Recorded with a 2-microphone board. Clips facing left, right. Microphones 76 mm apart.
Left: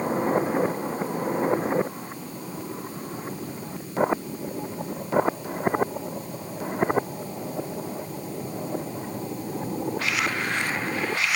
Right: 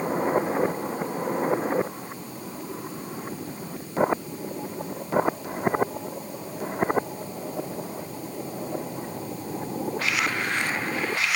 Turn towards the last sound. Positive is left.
No sound to turn to.